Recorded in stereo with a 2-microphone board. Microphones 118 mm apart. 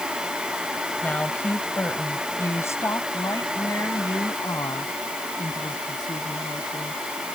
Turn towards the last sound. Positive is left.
turn(degrees=40)  # may be behind; listen again after turning